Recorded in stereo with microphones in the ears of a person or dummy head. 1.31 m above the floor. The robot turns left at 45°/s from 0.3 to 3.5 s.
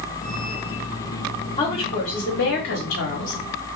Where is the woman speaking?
160° left, 1.0 m; by 3.4 s 80° left, 1.0 m.